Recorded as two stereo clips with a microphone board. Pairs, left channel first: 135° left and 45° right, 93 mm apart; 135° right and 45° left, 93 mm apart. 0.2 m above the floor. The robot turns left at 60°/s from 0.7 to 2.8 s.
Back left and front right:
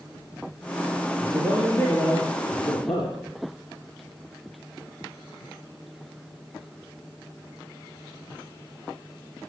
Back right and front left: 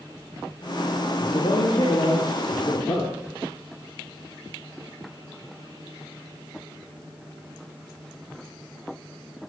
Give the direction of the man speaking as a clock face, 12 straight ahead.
4 o'clock.